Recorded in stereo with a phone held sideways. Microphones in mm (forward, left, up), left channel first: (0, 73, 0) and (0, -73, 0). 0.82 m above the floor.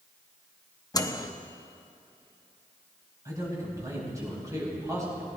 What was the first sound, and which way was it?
A microwave, 25° left (ahead or behind).